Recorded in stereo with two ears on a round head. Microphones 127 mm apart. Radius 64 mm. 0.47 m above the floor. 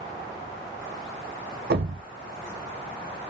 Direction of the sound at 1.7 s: 70° right (ahead or behind).